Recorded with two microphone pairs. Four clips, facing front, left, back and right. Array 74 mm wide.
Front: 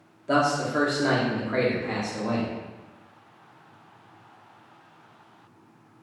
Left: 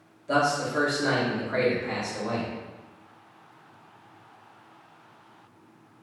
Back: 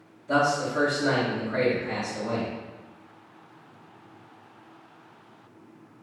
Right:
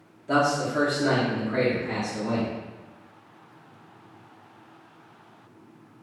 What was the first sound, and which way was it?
A man speaking, 15° right.